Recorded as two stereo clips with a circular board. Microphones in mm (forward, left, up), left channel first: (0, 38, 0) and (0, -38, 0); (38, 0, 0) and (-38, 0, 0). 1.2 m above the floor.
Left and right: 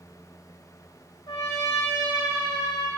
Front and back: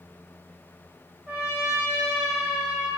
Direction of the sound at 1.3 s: 100° left.